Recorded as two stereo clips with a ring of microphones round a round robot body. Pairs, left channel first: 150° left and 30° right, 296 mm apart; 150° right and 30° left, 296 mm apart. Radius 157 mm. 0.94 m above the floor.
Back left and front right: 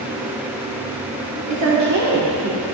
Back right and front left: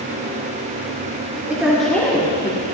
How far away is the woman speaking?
About 2.5 m.